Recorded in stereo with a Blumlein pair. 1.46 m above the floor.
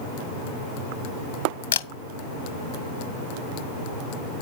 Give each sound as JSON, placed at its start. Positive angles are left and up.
{"t": 1.7, "sound": "a camera shutter", "azimuth_deg": 60, "distance_m": 0.8}